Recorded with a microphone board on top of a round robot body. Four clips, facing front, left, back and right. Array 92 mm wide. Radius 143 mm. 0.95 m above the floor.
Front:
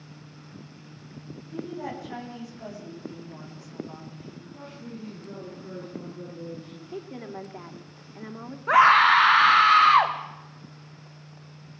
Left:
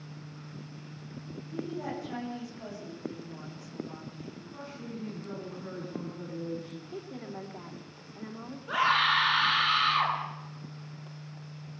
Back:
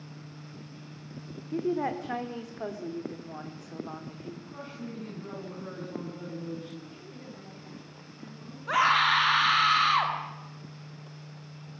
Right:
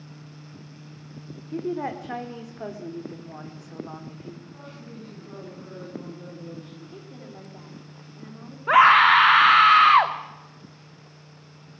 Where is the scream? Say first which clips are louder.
Right 11 dB, front 7 dB; 60° right, 2.5 m.